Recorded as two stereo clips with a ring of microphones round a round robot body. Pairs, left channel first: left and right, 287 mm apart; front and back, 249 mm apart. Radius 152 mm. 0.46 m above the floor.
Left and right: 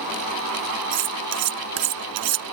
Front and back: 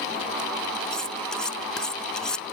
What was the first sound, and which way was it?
Cutlery clinking, 90° right.